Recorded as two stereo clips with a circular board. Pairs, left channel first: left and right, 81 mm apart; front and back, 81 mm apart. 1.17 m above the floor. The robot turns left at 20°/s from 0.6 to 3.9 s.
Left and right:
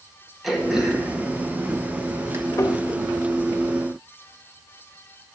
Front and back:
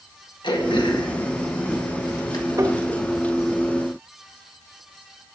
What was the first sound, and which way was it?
Throat clearing, straight ahead.